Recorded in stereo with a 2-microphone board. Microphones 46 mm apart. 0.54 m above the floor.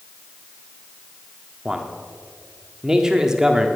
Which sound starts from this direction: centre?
A man speaking, at 1.6 s.